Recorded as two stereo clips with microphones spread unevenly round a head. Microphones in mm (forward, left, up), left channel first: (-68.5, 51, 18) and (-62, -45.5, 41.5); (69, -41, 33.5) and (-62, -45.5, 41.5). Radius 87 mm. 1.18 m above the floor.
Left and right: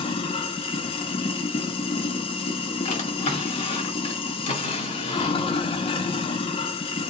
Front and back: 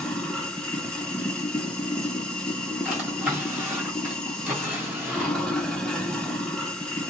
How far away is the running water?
About 0.8 m.